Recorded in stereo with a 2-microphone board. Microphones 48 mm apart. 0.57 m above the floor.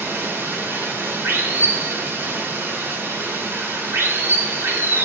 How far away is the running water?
About 5.5 m.